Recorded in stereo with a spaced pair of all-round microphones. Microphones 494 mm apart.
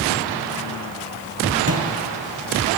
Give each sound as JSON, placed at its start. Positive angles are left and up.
{"t": 1.7, "sound": "footsteps", "side_deg": -30, "distance_m": 1.6}